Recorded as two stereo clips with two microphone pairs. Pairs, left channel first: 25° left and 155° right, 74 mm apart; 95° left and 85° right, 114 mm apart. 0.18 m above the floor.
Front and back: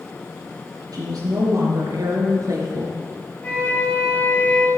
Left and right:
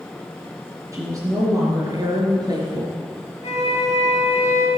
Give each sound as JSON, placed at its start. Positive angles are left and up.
{"t": 0.9, "sound": "a woman speaking", "azimuth_deg": -140, "distance_m": 4.0}
{"t": 3.4, "sound": "a flute", "azimuth_deg": 95, "distance_m": 4.0}